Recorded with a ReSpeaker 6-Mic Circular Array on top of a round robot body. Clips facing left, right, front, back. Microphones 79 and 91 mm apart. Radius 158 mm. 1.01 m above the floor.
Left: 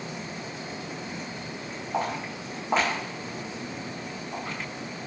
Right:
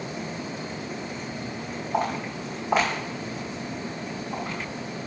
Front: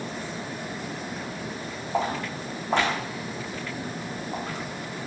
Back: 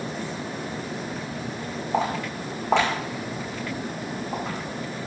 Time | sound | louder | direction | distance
1.9 | footsteps | right 3 dB, back 2 dB | 170° right | 5 m